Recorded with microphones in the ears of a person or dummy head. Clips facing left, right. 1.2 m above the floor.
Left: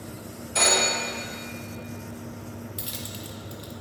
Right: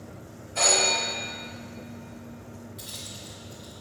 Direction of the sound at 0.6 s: 75° left (ahead or behind).